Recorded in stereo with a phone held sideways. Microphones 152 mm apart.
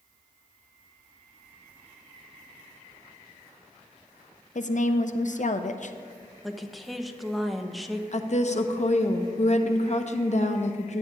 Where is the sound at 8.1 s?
55° left (ahead or behind), 0.7 m.